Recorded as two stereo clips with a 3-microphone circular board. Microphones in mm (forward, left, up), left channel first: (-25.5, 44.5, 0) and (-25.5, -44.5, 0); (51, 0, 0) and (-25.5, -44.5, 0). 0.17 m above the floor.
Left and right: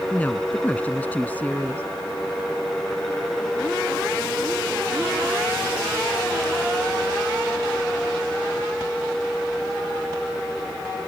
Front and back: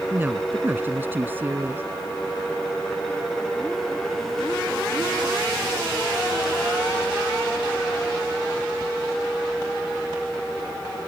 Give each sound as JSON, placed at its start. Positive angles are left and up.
{"t": 0.1, "sound": "a woman speaking", "azimuth_deg": 155}